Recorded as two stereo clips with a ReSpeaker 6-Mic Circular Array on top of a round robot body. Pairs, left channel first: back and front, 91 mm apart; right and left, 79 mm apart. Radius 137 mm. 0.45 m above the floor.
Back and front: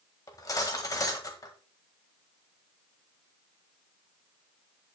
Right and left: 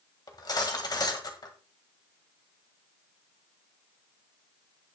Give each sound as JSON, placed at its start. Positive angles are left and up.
{"t": 0.3, "sound": "cutlery clinking", "azimuth_deg": -130, "distance_m": 1.9}